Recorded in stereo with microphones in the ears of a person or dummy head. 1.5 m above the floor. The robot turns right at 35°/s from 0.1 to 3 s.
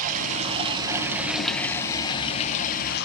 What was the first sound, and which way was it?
Running water, 45° right.